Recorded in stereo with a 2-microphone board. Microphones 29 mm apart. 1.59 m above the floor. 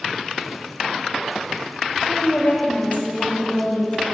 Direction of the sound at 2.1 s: 60° left (ahead or behind).